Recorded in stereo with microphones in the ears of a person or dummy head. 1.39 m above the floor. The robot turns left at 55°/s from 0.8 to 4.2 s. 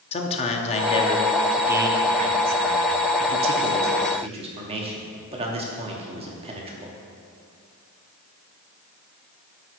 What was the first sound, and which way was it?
A man speaking, 35° left (ahead or behind).